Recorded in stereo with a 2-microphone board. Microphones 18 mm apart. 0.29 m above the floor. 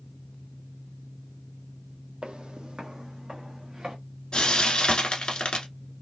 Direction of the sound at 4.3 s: 65° left (ahead or behind).